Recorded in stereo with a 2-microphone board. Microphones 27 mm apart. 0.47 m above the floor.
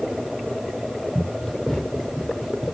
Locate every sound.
1.1 s running footsteps: 10° left (ahead or behind), 6.5 m; by 2.8 s centre (ahead or behind), 7.5 m